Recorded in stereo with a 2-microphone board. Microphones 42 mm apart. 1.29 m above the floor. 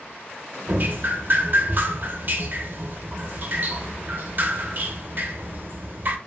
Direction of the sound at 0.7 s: 45° right (ahead or behind).